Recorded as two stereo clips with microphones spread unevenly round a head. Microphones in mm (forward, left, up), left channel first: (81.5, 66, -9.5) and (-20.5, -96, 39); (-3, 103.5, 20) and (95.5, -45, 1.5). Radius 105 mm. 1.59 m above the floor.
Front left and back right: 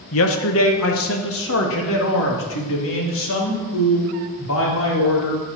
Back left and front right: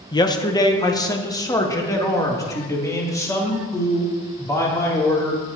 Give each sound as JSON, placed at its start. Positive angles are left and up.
{"t": 0.1, "sound": "a man speaking", "azimuth_deg": 55, "distance_m": 1.5}